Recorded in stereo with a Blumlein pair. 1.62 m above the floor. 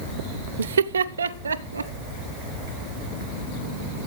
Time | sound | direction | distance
0.6 | laughter | 65° right | 0.6 m